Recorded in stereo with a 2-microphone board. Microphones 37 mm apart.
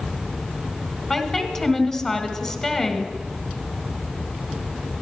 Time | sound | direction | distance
1.1 | a woman speaking | 15° left (ahead or behind) | 1.5 m